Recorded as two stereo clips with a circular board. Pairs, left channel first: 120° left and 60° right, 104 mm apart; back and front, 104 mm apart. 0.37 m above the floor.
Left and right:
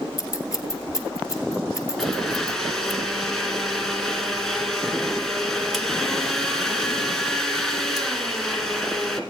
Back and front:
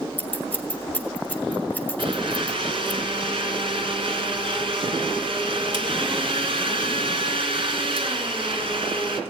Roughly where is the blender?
Ahead left.